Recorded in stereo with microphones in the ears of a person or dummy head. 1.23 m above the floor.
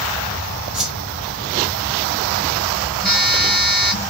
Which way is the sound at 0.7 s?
Centre (ahead or behind).